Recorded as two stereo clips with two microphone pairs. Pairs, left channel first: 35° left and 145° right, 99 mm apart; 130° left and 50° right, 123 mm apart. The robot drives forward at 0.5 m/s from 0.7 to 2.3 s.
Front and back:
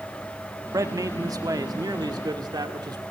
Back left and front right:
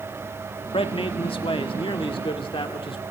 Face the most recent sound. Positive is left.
turn(degrees=170)